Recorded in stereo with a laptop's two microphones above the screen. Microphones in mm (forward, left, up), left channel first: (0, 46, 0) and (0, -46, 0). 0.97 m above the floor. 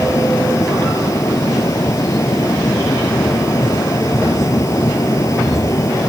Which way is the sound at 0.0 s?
35° left (ahead or behind).